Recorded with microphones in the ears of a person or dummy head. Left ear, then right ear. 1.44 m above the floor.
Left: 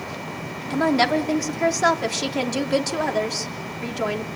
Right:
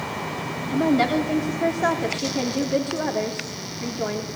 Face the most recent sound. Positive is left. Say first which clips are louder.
# left 2 dB
turn(degrees=75)  # may be behind; listen again after turning